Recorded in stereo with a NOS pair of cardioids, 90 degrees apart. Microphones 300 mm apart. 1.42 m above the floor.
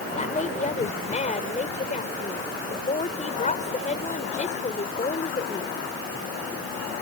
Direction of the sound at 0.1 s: 25° left.